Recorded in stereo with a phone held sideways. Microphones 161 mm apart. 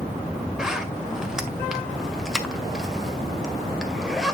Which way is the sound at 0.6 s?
Centre (ahead or behind).